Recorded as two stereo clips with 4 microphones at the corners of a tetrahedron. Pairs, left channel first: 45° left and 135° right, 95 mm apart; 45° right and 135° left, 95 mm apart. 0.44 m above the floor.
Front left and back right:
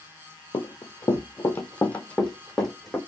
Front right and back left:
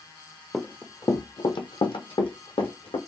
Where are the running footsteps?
35° left, 0.6 m; by 3.0 s 45° right, 1.5 m.